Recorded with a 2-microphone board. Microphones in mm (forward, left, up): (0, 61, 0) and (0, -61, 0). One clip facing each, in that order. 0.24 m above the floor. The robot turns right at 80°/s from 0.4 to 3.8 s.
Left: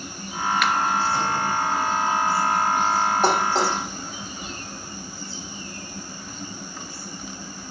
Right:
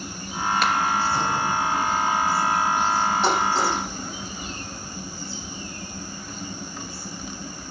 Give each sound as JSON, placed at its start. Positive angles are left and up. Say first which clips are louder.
{"t": 0.6, "sound": "a finger snap", "louder": "even", "side_deg": -35, "distance_m": 2.5}
{"t": 3.2, "sound": "dishes clattering", "louder": "left 1 dB", "side_deg": 45, "distance_m": 7.0}